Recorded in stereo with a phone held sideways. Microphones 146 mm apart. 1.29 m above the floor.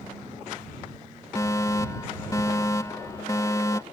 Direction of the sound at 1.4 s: 25° left (ahead or behind).